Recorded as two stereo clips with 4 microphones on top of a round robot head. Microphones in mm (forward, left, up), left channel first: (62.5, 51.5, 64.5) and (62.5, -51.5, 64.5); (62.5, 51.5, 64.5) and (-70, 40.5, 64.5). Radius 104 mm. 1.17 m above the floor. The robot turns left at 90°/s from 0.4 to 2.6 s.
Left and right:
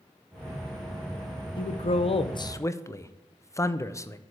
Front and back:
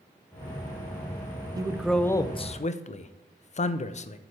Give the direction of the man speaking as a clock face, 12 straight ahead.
8 o'clock.